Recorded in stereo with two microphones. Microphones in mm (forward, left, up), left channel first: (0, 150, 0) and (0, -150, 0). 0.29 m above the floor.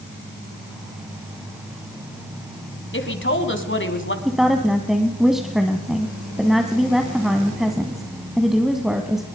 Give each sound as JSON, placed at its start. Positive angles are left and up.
{"t": 2.9, "sound": "a woman speaking", "side_deg": 40, "distance_m": 2.5}
{"t": 4.2, "sound": "a woman speaking", "side_deg": 0, "distance_m": 1.7}